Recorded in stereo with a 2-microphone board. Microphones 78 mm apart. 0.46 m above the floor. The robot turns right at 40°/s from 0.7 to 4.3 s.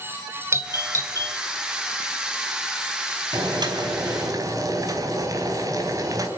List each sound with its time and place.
0.5 s a doorbell: 35° right (ahead or behind), 2.5 m; by 1.4 s 55° right (ahead or behind), 2.5 m
3.3 s boiling: 95° right, 4 m; by 6.3 s 55° right, 4 m